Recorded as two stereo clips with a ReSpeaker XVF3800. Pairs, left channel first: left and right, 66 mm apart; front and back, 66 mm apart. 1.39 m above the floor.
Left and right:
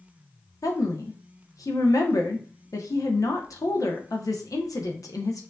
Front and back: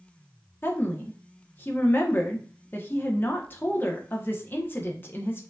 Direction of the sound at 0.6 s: 60° left.